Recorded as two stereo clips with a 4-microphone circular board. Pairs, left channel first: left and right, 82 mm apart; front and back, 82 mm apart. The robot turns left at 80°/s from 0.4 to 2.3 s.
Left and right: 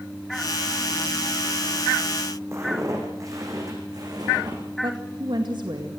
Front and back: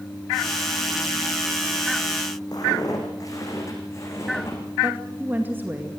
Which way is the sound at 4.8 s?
115° right.